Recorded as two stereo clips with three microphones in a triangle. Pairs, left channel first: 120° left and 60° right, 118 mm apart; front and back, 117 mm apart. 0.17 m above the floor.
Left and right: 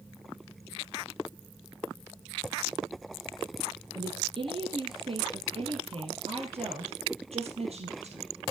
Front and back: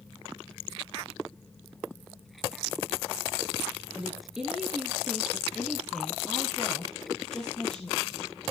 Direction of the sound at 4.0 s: 100° right.